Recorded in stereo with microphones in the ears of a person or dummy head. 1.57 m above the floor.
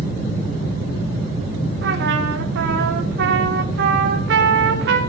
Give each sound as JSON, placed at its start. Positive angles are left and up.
{"t": 1.8, "sound": "a trumpet", "side_deg": -75, "distance_m": 3.5}